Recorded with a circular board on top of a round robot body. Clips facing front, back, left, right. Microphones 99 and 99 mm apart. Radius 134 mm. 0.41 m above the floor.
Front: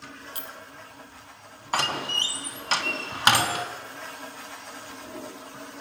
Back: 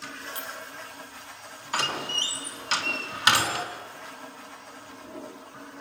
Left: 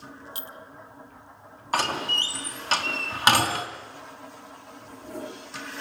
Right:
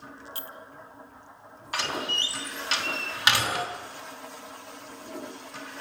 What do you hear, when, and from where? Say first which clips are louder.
0.3 s a clink: back 3 dB, even; 20° left, 1.6 m
1.7 s a door slam: front 2 dB, left 5 dB; 45° left, 3.5 m